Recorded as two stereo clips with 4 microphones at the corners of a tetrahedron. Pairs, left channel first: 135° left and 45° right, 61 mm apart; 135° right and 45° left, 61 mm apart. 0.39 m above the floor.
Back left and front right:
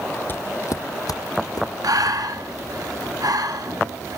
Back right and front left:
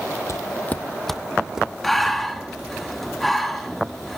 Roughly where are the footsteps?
Behind.